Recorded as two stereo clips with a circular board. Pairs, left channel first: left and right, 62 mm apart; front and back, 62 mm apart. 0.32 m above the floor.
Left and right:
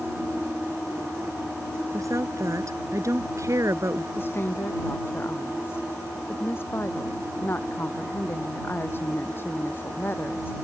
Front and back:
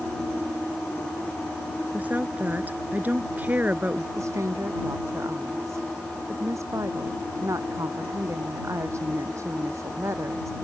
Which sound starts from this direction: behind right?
A woman speaking, at 1.9 s.